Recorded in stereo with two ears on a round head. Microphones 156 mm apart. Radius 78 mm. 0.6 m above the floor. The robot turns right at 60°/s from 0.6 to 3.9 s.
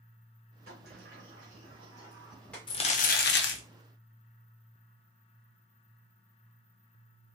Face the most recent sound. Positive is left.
turn(degrees=100)